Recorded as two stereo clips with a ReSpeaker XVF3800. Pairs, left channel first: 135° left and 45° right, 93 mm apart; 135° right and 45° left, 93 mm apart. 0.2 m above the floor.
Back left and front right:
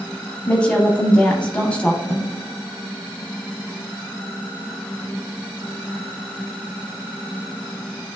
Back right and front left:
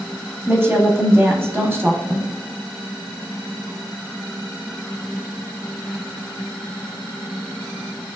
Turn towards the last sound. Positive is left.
turn(degrees=70)